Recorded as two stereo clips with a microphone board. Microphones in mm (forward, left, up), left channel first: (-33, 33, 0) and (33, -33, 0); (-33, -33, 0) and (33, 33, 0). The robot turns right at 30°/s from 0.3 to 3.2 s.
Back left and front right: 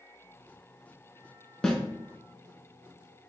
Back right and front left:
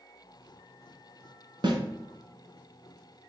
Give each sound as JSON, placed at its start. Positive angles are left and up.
{"t": 1.6, "sound": "a snare drum", "azimuth_deg": 50, "distance_m": 0.6}